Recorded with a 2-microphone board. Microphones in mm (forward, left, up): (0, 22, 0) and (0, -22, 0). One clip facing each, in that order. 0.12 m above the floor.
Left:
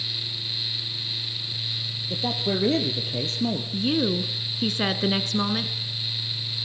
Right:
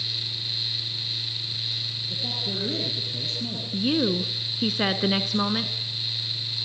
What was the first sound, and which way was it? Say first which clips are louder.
A man speaking: left 7 dB; 55° left (ahead or behind).